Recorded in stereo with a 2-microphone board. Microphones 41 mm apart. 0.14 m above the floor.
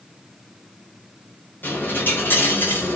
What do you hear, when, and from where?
1.6 s a dropped coin: 60° left (ahead or behind), 5.5 m